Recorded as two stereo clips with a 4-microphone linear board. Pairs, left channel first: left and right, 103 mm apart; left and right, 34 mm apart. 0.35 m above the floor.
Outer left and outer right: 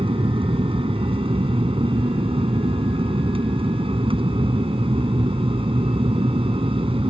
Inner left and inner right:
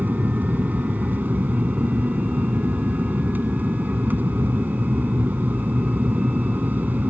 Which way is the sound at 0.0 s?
60° right (ahead or behind).